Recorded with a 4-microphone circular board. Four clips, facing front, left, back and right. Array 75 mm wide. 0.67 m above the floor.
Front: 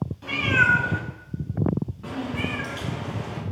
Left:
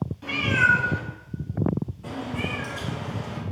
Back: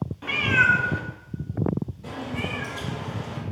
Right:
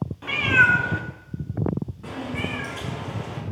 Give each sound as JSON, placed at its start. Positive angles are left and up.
{"t": 0.2, "sound": "a cat meowing", "azimuth_deg": -140, "distance_m": 0.6}